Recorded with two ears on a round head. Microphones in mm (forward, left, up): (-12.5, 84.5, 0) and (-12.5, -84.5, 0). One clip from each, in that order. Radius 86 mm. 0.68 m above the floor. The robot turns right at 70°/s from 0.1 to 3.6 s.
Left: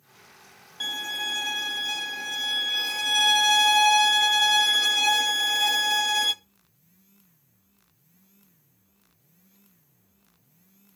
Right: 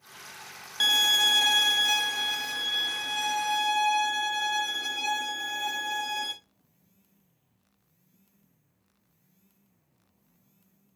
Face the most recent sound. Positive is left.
turn(degrees=75)